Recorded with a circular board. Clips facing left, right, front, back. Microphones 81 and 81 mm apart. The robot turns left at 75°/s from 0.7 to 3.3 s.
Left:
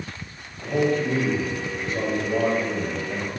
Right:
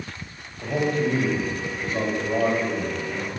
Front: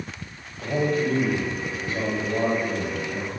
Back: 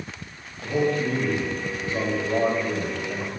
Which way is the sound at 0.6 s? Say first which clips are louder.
Left 1 dB, even; 25° right.